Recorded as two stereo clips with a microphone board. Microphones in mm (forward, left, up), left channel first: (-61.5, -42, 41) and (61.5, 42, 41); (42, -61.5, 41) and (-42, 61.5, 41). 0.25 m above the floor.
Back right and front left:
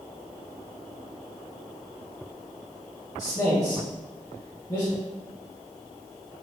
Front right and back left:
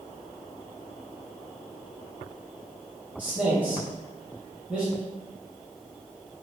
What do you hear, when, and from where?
3.2 s a man speaking: 170° right, 1.0 m